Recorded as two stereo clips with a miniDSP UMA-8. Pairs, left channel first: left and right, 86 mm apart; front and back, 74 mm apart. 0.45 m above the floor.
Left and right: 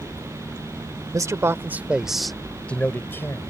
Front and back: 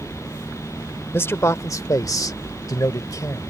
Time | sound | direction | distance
1.1 | a man speaking | 50° right | ?